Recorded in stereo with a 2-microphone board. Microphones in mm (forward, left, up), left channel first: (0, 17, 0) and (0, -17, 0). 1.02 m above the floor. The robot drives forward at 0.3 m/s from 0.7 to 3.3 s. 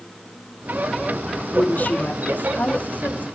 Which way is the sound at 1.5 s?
60° left (ahead or behind).